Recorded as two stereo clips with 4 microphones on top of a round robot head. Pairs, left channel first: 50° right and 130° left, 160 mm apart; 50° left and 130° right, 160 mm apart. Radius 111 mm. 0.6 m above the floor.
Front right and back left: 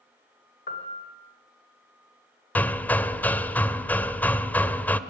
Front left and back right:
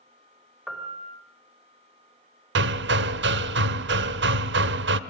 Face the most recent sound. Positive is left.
turn(degrees=-130)